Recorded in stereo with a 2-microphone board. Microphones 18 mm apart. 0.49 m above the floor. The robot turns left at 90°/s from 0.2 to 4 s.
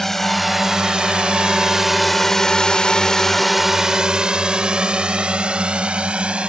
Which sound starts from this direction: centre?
A drone, at 0.0 s.